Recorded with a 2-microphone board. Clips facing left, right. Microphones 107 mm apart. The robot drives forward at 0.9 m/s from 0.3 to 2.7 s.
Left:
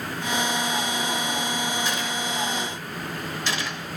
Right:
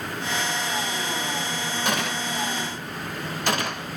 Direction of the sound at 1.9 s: 55° right (ahead or behind).